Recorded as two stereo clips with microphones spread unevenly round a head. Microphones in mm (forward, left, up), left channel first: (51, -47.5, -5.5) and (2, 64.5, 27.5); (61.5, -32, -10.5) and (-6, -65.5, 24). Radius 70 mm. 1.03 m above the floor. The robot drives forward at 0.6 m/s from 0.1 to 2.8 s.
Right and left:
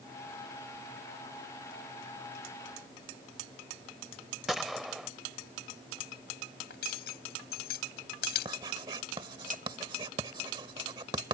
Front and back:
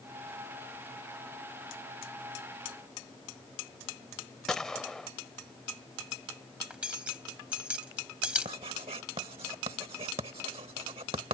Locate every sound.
4.5 s a gunshot: 165° left
6.7 s cutlery clinking: 85° right
8.4 s writing: 175° left